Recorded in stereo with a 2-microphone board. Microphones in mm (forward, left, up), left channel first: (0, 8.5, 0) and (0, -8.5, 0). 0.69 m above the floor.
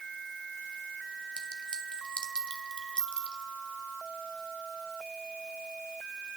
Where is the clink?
80° left, 2.5 m.